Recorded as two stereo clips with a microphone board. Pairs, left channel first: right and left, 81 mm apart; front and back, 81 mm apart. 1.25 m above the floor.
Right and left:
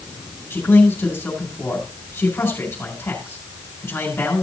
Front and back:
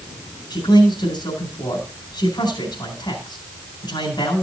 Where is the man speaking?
25° right, 4 m.